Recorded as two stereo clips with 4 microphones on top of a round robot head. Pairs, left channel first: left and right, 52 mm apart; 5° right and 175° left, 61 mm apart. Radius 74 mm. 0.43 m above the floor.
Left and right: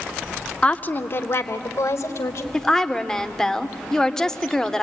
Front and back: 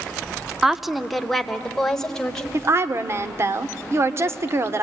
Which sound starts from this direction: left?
A woman speaking, at 0.6 s.